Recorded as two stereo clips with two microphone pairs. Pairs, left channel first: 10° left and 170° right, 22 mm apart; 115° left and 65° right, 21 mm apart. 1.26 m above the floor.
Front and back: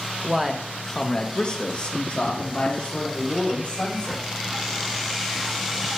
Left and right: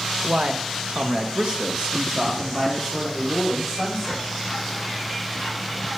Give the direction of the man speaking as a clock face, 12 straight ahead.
3 o'clock.